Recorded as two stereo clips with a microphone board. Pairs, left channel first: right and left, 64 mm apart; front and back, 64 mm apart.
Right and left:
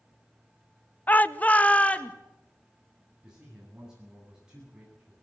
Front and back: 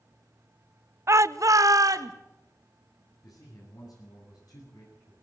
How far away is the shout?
About 0.7 m.